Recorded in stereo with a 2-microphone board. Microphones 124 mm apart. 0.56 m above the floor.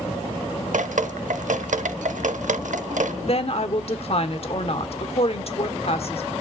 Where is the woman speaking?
50° left (ahead or behind), 1.4 m.